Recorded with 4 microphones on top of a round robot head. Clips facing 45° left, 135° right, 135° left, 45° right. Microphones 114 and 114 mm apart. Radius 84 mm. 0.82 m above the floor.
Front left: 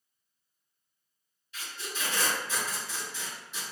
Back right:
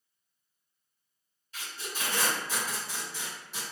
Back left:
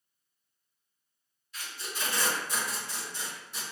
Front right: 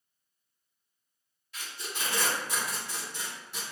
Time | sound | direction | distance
1.5 | tape being pulled | 80° right | 1.9 m